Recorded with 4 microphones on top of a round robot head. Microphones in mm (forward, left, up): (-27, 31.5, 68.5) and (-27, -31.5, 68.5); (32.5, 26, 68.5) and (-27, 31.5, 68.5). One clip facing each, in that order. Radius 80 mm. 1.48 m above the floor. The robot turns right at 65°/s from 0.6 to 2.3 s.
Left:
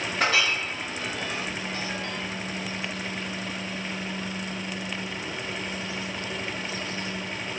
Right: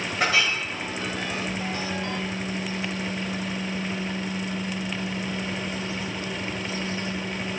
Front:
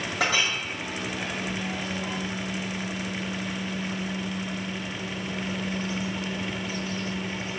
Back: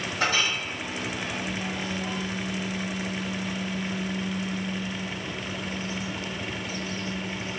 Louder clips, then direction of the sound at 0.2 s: Right 1 dB, even; 5° right.